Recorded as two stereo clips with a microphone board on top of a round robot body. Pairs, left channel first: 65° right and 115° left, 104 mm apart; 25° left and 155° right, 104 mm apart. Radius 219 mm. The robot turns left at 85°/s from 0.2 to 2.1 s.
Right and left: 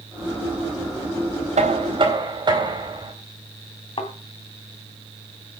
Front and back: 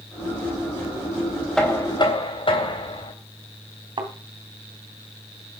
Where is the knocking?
110° left, 3.5 m; by 3.1 s 65° left, 3.5 m.